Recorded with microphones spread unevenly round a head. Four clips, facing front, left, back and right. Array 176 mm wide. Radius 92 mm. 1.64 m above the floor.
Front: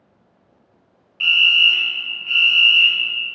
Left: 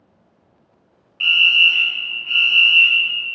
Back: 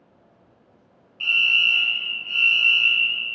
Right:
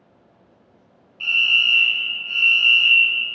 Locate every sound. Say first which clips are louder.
1.2 s a fire alarm: left 4 dB, front 5 dB; 30° left, 1.0 m